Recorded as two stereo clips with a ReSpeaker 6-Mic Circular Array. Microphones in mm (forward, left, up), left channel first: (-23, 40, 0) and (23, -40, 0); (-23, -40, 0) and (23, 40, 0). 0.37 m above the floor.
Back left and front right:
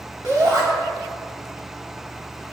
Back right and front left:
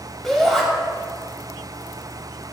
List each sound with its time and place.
0.2 s a shout: 35° right, 2.5 m